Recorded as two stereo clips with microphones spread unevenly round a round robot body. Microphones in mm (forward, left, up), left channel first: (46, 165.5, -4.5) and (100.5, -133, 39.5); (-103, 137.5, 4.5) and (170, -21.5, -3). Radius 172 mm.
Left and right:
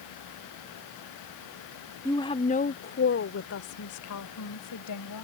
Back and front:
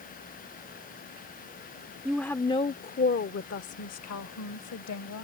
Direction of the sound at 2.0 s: 50° left.